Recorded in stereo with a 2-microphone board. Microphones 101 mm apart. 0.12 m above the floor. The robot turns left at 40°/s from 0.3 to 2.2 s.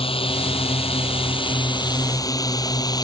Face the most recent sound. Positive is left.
turn(degrees=40)  # may be behind; listen again after turning